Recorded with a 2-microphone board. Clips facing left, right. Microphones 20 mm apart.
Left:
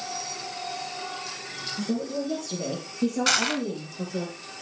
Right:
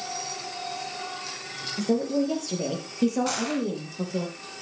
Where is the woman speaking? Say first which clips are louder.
Right 6 dB; 45° right (ahead or behind), 4 m; by 4.3 s 30° right (ahead or behind), 5.5 m.